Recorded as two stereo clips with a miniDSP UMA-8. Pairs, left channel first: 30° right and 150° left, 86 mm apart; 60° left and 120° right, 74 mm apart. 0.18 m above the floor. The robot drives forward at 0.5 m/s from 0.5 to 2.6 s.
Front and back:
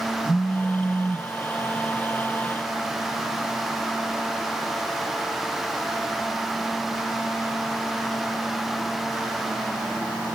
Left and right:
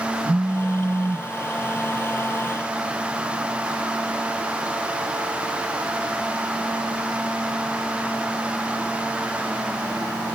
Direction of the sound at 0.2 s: 150° right.